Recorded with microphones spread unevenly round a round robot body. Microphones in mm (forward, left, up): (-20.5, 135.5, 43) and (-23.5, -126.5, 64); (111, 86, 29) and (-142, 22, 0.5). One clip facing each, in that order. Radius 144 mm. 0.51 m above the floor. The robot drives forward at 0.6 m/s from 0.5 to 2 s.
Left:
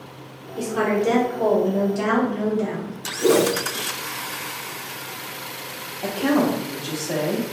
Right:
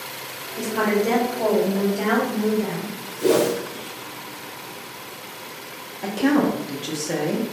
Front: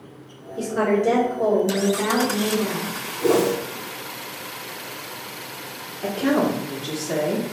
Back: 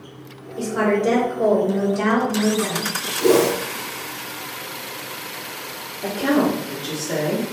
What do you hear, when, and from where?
0.6 s a woman speaking: 100° left, 1.1 m; by 2.9 s 160° left, 1.4 m
3.2 s a whoosh: 170° left, 0.6 m
6.0 s a woman speaking: 100° right, 0.7 m